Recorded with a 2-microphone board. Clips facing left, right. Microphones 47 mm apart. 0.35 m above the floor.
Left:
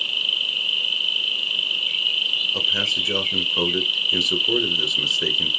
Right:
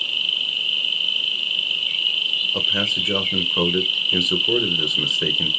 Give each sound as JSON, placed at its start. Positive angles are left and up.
{"t": 0.0, "sound": "an insect", "side_deg": 0, "distance_m": 2.5}
{"t": 2.5, "sound": "a man speaking", "side_deg": -10, "distance_m": 0.9}